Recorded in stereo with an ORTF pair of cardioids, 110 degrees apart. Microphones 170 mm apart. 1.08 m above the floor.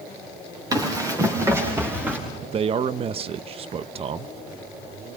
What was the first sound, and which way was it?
Running footsteps, 20° right.